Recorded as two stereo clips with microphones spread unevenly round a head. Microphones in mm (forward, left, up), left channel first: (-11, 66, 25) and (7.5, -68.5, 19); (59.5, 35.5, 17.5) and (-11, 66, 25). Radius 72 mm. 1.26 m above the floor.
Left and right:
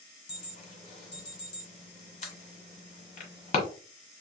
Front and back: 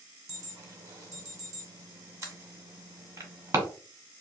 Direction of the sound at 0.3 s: 110° left.